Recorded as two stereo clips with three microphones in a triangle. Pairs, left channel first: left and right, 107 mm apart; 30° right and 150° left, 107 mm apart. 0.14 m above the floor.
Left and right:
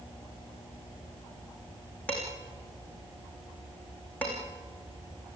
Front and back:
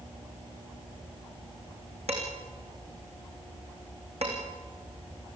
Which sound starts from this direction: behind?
Dishes clattering, at 2.1 s.